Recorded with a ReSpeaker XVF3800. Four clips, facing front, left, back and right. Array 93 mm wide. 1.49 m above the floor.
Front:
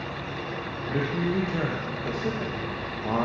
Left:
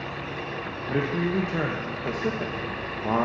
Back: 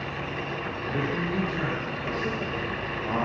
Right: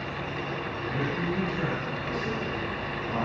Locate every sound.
0.9 s a man speaking: 75° left, 0.9 m